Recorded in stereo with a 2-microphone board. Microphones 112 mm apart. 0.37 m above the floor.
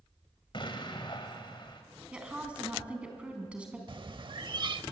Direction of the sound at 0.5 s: 45° left (ahead or behind).